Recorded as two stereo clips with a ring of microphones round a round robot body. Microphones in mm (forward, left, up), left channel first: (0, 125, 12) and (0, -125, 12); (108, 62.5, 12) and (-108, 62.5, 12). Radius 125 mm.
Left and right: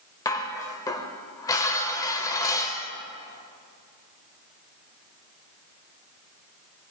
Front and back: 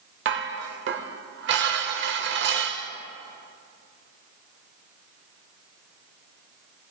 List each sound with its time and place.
0.2 s dishes clattering: 165° left, 0.9 m